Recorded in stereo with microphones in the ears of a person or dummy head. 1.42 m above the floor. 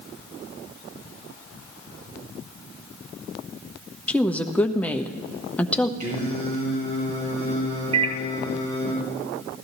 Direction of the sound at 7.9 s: 35° right (ahead or behind).